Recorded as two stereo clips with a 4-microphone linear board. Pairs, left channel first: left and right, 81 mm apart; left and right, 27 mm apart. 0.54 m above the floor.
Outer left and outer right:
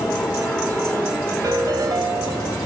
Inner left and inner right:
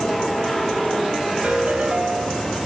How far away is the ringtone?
About 2.5 m.